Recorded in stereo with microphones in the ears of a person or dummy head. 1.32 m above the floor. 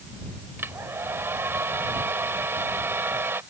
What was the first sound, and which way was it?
A hair dryer, 10° right (ahead or behind).